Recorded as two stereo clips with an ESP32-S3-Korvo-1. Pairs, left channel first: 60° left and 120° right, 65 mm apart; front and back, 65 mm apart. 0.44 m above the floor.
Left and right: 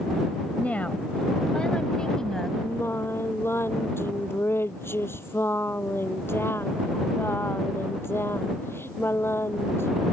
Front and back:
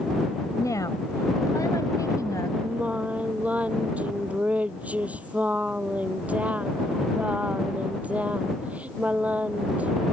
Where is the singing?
115° left.